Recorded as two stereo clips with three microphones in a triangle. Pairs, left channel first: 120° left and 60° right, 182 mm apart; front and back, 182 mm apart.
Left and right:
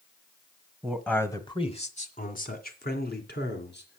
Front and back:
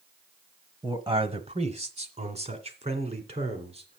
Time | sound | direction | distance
0.8 | a man speaking | 140° right | 1.2 m